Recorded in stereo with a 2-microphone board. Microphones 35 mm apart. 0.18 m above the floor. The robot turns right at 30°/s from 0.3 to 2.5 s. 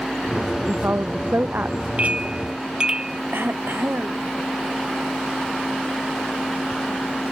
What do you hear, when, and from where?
0.7 s a woman speaking: 100° right; by 1.9 s 60° right
2.0 s a clink: 40° right (ahead or behind); by 3.2 s 25° right (ahead or behind)
3.3 s throat clearing: 75° right (ahead or behind)